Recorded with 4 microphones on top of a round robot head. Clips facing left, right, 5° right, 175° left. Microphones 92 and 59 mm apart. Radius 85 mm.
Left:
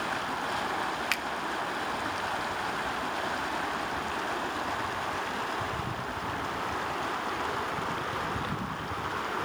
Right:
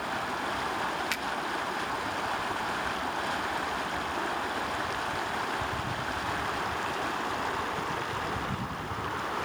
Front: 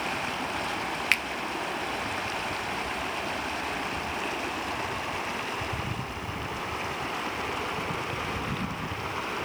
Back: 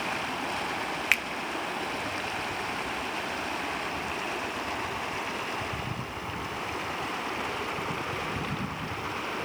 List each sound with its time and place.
1.1 s a finger snap: 95° left, 1.2 m